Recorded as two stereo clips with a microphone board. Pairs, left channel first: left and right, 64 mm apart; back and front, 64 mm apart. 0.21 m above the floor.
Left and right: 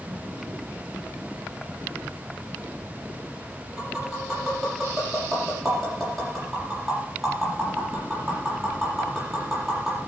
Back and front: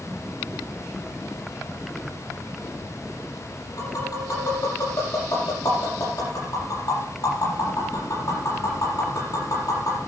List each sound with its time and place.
3.8 s tapping: straight behind, 7 m